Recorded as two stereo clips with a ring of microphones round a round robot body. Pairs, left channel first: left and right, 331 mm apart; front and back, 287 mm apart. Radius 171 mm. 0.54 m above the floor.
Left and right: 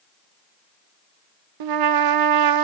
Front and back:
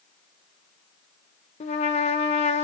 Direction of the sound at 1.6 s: 70° right.